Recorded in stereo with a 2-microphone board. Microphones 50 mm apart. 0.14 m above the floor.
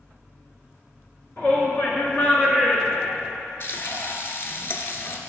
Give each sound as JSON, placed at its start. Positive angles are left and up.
{"t": 1.4, "sound": "a shout", "side_deg": 40, "distance_m": 2.5}
{"t": 3.6, "sound": "frying", "side_deg": 50, "distance_m": 0.8}